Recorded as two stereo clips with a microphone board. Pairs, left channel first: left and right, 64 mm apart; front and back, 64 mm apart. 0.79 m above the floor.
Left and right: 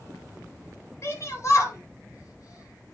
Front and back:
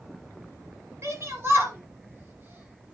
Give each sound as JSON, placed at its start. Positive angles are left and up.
{"t": 1.0, "sound": "a shout", "azimuth_deg": 135, "distance_m": 6.0}